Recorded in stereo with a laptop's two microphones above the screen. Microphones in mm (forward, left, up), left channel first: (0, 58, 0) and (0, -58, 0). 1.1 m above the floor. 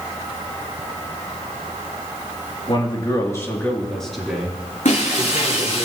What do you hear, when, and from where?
2.7 s a man speaking: 45° left (ahead or behind), 2.5 m; by 5.8 s 25° right (ahead or behind), 4.5 m
4.8 s breaking glass: 80° left, 7.5 m